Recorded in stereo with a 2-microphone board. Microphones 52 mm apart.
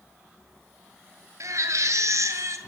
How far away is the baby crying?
About 2.5 m.